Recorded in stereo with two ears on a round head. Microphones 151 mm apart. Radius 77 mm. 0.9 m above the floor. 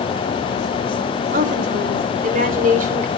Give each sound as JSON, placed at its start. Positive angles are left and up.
{"t": 1.3, "sound": "a woman speaking", "side_deg": -50, "distance_m": 3.5}